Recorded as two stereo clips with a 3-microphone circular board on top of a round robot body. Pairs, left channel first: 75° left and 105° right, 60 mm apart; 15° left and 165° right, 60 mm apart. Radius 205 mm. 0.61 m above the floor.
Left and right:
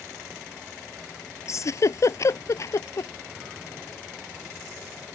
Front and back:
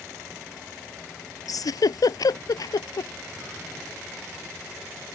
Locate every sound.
1.5 s a giggle: 35° left